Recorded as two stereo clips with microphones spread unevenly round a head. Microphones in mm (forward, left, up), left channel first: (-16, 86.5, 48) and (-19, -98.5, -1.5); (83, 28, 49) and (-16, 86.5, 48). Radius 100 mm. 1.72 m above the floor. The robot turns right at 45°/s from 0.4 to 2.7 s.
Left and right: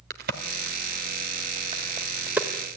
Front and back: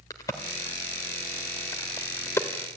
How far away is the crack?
About 1.6 m.